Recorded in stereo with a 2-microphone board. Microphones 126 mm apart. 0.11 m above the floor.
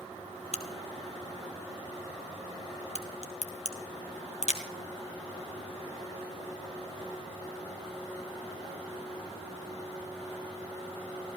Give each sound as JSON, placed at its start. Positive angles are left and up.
{"t": 0.5, "sound": "a crack", "side_deg": 65, "distance_m": 1.5}